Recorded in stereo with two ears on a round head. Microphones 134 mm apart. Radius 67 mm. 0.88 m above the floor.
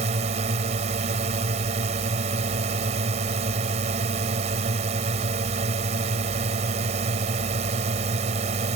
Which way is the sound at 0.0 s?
45° right (ahead or behind).